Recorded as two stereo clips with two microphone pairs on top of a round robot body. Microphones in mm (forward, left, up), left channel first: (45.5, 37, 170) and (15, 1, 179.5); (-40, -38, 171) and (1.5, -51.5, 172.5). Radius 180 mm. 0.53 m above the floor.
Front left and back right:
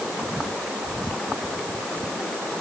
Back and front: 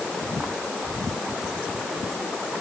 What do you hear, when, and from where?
Only background noise.